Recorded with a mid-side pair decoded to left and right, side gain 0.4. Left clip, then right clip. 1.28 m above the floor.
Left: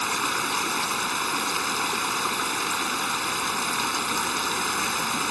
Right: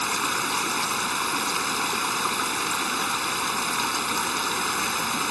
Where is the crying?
No crying in this recording.